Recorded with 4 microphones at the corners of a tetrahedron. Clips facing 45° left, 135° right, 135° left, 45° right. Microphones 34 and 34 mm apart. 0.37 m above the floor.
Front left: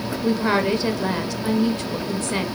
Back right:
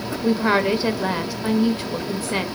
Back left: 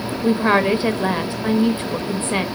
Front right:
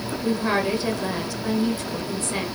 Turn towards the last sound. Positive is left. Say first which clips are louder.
# back right 2 dB, back left 7 dB
turn(degrees=150)